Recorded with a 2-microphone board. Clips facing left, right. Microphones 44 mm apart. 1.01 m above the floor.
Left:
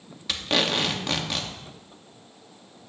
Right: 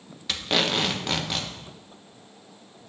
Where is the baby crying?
No baby crying in this recording.